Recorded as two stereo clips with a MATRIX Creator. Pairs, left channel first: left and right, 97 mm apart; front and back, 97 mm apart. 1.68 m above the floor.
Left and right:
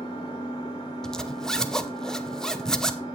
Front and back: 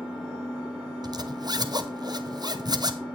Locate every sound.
0.0 s an engine running: 100° left, 4 m
1.0 s a zipper: 170° left, 0.7 m